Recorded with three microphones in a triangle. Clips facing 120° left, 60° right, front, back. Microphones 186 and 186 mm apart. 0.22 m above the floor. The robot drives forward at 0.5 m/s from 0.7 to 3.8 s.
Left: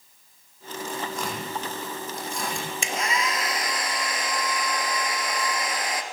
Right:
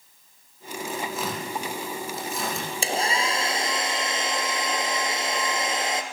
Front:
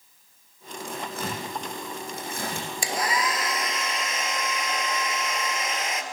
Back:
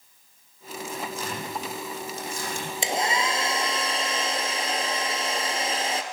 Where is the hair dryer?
115° right, 2.5 m; by 6.0 s 125° right, 2.5 m.